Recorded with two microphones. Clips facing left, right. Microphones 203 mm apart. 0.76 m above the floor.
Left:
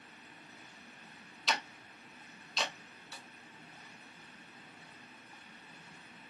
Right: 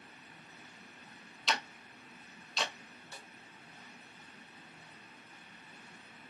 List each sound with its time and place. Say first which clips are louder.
1.5 s ticking: right 1 dB; centre (ahead or behind), 0.5 m
3.1 s a snare drum: even; 50° right (ahead or behind), 0.8 m